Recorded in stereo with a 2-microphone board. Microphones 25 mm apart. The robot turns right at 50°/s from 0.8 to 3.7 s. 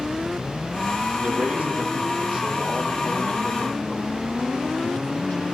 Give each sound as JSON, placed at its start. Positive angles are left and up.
{"t": 1.1, "sound": "a man speaking", "azimuth_deg": -70, "distance_m": 9.0}